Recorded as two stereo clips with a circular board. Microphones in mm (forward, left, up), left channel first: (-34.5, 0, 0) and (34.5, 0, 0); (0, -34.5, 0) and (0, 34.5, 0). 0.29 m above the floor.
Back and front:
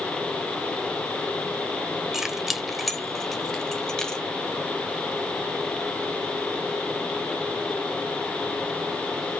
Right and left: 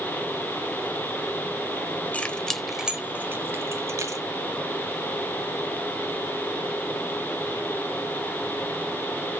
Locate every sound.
2.1 s keys jangling: 70° right, 0.9 m; by 4.2 s 100° left, 1.4 m